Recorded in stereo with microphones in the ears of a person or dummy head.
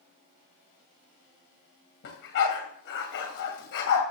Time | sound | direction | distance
2.0 | a dog barking | 70° left (ahead or behind) | 2.5 m